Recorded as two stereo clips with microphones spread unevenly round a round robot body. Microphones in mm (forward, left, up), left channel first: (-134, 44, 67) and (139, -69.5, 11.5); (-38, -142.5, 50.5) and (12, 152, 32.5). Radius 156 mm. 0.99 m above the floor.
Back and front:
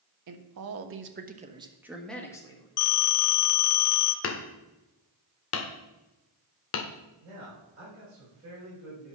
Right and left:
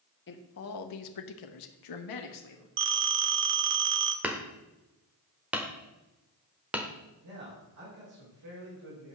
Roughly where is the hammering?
Behind.